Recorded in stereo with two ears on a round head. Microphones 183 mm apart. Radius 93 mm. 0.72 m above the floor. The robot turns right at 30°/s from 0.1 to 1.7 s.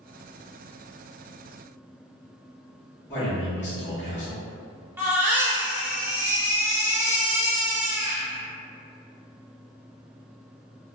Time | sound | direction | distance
3.1 | a man speaking | 25° left (ahead or behind) | 1.2 m
5.0 | a baby crying | 15° right (ahead or behind) | 0.7 m